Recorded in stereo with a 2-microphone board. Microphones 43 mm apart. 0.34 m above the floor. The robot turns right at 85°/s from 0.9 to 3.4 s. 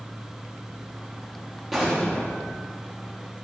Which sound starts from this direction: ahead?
An explosion, at 1.7 s.